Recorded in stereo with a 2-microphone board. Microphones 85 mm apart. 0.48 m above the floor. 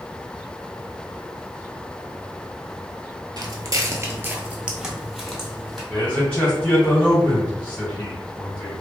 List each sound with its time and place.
3.4 s footsteps: 50° right (ahead or behind), 0.6 m; by 5.8 s 10° left (ahead or behind), 1.1 m
5.9 s a man speaking: 15° left (ahead or behind), 1.8 m